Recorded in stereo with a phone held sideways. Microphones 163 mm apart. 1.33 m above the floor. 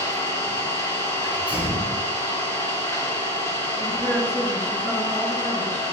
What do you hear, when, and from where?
0.0 s an engine running: 20° left (ahead or behind), 1.9 m
1.2 s a sneeze: 10° right (ahead or behind), 3 m
3.8 s a woman speaking: 10° left (ahead or behind), 2.5 m